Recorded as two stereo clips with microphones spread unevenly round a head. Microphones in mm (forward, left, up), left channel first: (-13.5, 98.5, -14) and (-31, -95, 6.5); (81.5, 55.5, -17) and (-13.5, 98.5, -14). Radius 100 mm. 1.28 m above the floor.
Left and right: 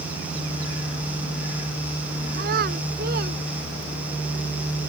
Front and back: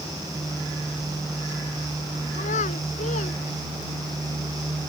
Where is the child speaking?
50° right.